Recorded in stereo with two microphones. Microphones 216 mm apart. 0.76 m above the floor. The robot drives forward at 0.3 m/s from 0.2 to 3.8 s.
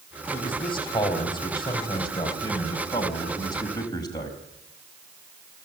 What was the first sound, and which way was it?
A man speaking, 25° left (ahead or behind).